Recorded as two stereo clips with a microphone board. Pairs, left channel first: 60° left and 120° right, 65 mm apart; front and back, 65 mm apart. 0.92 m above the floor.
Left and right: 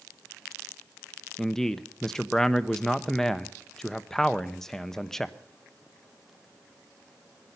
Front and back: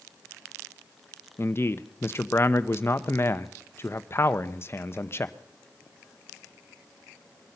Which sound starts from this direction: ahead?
A man speaking, at 1.4 s.